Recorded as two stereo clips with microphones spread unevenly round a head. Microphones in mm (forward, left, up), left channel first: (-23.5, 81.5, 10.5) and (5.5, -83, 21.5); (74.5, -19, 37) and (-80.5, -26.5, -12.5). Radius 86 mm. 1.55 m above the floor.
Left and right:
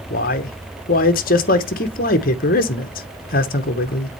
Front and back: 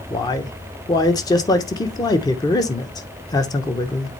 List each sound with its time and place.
0.1 s a man speaking: 60° left, 0.9 m